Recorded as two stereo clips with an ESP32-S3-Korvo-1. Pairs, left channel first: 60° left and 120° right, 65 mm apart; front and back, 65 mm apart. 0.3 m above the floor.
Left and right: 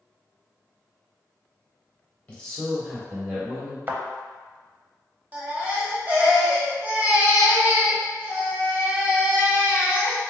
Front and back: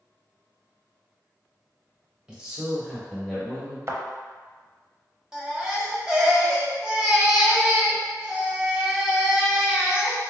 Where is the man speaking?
120° left, 1.4 m; by 3.8 s 75° right, 1.7 m.